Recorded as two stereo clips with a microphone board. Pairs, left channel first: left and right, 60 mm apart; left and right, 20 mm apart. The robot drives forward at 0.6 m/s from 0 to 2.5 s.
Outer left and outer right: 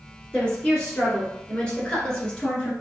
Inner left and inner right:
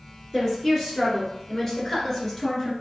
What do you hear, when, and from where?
0.3 s a woman speaking: 10° left (ahead or behind), 1.9 m; by 2.7 s 15° left (ahead or behind), 1.8 m